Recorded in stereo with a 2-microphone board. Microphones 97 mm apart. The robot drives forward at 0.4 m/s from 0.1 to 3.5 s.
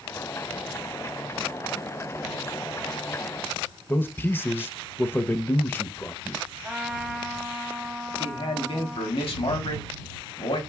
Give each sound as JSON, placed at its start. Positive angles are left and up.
{"t": 3.9, "sound": "a man speaking", "side_deg": 20, "distance_m": 0.6}
{"t": 6.6, "sound": "a trumpet", "side_deg": -10, "distance_m": 1.0}
{"t": 8.1, "sound": "a man speaking", "side_deg": 70, "distance_m": 1.6}